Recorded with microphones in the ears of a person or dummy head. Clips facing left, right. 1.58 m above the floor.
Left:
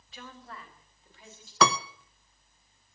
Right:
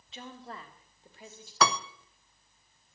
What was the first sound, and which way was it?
A woman speaking, 25° right (ahead or behind).